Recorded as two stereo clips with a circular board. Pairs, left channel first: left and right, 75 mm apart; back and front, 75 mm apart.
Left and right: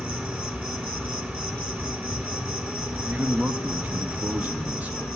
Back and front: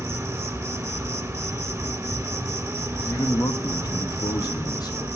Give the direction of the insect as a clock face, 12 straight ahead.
1 o'clock.